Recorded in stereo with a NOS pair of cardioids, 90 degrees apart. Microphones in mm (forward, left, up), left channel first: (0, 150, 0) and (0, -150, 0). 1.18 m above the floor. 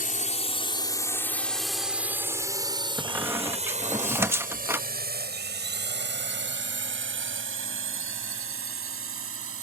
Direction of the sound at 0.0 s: 30° left.